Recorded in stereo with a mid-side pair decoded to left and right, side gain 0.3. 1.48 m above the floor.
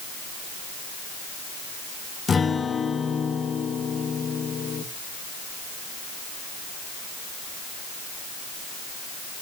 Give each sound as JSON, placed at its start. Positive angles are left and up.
{"t": 2.3, "sound": "a guitar", "azimuth_deg": 55, "distance_m": 1.7}